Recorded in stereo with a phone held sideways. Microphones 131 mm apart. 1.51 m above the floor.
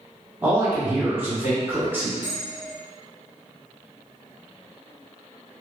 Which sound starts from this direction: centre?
A man speaking, at 0.4 s.